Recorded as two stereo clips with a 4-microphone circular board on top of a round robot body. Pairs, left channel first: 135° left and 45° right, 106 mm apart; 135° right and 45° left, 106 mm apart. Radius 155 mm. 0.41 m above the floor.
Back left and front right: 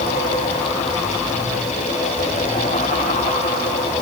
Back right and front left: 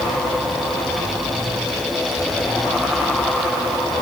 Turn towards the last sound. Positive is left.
No sound to turn to.